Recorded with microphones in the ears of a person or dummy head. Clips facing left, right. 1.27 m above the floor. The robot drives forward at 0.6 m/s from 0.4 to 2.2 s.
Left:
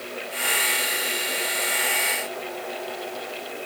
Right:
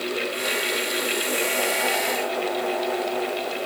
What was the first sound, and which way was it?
Only background noise.